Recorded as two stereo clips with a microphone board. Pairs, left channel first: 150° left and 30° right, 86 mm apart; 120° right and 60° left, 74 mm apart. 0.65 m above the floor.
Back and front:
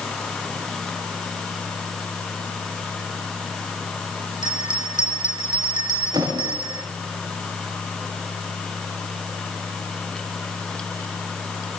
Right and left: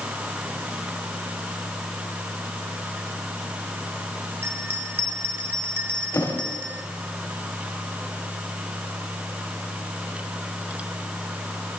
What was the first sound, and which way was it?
A bell, straight ahead.